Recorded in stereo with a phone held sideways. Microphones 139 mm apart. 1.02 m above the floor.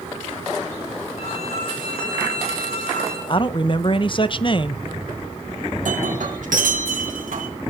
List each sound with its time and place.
1.2 s a violin: 50° left (ahead or behind), 9 m
3.3 s a man speaking: 40° left (ahead or behind), 0.8 m
5.8 s breaking glass: 75° right (ahead or behind), 3.5 m